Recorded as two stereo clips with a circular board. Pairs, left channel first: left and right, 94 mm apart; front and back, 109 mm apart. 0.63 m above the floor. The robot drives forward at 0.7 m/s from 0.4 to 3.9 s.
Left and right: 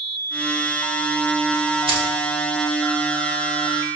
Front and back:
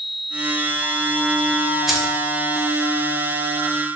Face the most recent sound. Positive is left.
turn(degrees=-135)